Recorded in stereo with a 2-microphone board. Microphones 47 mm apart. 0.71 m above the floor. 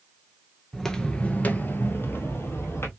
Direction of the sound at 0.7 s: 5° left (ahead or behind).